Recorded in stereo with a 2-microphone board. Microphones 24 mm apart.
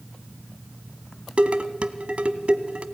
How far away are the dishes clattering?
About 1.2 m.